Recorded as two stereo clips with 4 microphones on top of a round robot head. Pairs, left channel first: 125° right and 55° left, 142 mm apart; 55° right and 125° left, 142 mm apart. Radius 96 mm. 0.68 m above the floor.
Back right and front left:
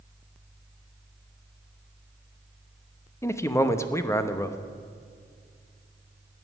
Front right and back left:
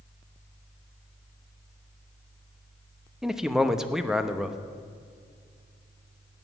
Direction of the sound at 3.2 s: 155° right.